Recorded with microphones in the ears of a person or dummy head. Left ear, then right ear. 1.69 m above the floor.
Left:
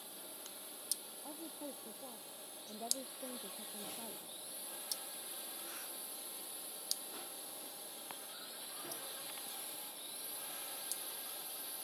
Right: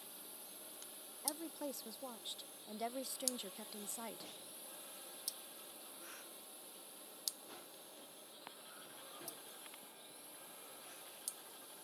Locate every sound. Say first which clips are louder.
0.0 s a drone: left 4 dB; centre (ahead or behind); by 11.8 s 25° left (ahead or behind)
1.2 s a woman speaking: right 4 dB; 60° right (ahead or behind)